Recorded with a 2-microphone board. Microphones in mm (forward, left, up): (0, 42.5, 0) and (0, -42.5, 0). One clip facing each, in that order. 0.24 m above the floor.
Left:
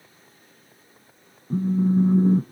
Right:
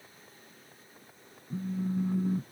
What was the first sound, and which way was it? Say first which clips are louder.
A phone buzzing: left 12 dB; 45° left (ahead or behind).